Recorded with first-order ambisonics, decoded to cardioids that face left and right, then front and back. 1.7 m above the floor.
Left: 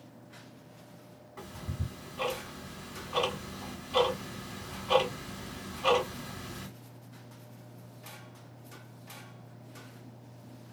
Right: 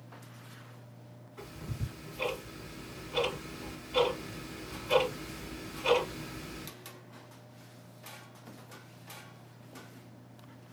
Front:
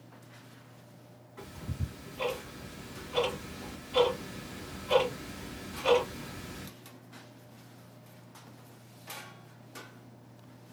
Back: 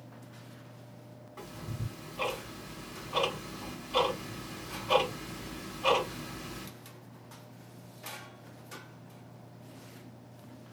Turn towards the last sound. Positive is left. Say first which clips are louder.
# left 1 dB, back 1 dB
turn(degrees=130)